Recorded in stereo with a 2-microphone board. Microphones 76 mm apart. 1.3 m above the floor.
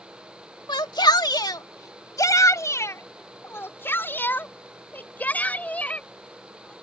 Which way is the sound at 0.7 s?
80° left.